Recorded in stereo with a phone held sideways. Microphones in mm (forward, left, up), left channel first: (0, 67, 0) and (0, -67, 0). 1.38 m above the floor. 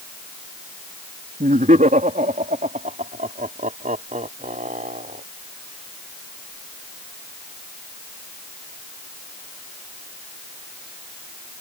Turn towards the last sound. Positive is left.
turn(degrees=-75)  # may be behind; listen again after turning